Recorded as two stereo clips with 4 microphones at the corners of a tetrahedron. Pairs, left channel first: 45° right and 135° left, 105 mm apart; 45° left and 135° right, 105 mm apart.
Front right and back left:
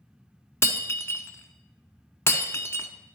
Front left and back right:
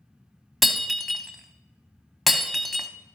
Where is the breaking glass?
45° right, 0.7 m.